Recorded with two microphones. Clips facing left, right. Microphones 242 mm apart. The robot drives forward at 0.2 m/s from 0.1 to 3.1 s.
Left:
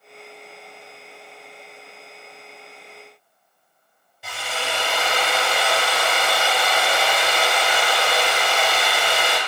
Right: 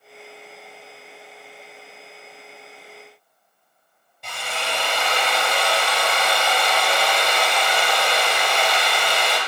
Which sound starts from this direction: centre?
A drill, at 4.2 s.